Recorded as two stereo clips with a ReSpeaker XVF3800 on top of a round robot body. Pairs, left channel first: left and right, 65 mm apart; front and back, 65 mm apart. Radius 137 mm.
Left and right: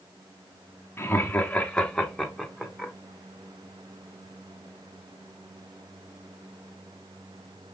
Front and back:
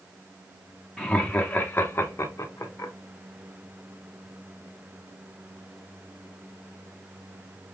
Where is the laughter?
75° left, 1.0 m; by 2.9 s 15° right, 1.3 m.